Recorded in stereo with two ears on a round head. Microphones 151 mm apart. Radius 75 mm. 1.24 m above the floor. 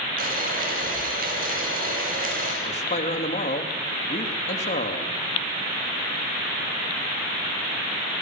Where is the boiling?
55° right (ahead or behind), 8 m.